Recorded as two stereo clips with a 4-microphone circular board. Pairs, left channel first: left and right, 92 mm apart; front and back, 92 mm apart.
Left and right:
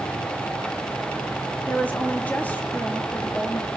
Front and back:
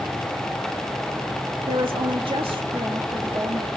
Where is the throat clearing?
No throat clearing in this recording.